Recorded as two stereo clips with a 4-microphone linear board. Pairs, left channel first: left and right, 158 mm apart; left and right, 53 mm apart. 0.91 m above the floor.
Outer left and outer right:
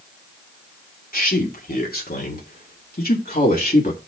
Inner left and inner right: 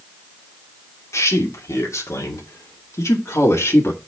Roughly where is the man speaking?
Left.